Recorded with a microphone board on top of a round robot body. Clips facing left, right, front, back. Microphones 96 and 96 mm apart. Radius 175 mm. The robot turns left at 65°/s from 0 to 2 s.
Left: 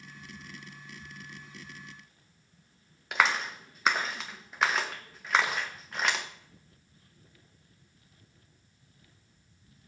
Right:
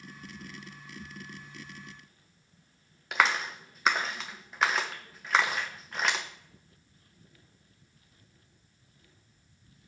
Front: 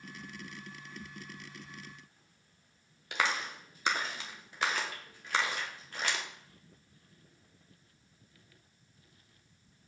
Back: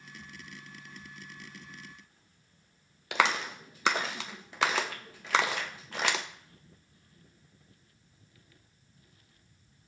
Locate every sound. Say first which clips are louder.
3.1 s a clap: even, back 5 dB; straight behind, 0.7 m